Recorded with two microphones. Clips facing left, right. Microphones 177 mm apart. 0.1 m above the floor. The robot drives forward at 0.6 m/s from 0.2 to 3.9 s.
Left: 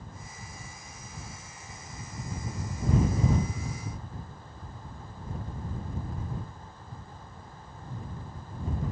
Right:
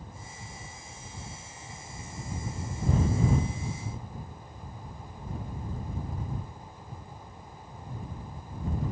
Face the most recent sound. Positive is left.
No sound to turn to.